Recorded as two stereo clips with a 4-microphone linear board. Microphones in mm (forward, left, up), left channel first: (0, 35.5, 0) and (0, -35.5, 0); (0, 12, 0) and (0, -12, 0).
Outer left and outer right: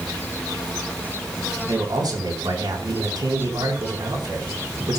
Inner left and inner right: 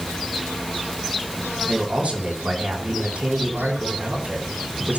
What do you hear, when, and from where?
1.6 s a man speaking: 70° right (ahead or behind), 4 m